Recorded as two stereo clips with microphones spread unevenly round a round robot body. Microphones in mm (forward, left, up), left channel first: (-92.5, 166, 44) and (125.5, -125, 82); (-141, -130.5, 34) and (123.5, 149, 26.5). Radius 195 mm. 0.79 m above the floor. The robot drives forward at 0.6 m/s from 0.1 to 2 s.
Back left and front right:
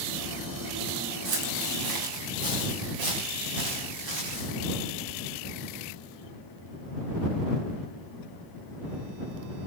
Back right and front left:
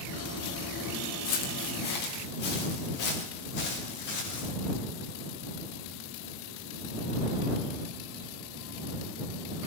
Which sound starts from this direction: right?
Footsteps, at 1.2 s.